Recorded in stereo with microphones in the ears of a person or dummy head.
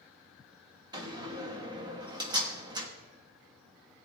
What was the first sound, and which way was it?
A door slam, 25° right (ahead or behind).